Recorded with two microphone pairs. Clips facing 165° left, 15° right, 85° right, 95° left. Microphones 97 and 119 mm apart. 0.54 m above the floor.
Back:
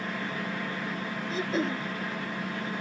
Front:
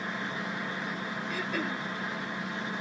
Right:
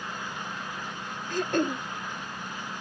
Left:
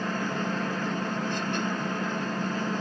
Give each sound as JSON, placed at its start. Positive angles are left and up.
{"t": 0.0, "sound": "an engine running", "azimuth_deg": 85}
{"t": 1.3, "sound": "throat clearing", "azimuth_deg": -125}